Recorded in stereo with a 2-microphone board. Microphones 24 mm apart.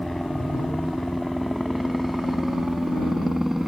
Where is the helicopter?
10° left (ahead or behind); by 3.7 s 20° right (ahead or behind).